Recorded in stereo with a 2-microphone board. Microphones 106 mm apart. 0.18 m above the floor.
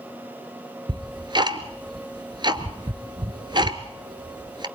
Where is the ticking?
45° right (ahead or behind), 1.3 m.